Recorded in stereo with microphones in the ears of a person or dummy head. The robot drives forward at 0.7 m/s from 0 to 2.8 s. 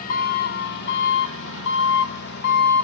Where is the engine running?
50° left (ahead or behind), 1.9 m; by 2.9 s 55° left (ahead or behind), 1.8 m.